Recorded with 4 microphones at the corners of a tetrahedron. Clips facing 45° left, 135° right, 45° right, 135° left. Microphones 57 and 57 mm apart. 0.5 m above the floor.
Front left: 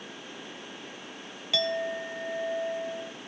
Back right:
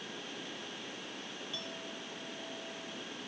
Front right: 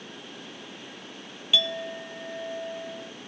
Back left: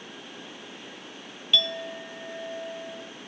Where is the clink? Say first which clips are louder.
Front left 20 dB, even; 40° left.